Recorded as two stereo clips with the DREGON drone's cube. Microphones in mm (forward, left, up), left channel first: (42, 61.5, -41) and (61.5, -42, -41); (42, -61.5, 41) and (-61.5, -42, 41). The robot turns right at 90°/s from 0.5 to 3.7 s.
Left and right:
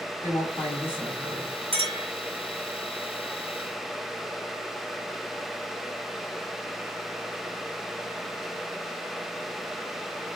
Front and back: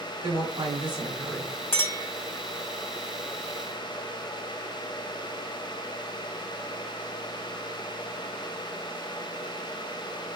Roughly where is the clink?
Right.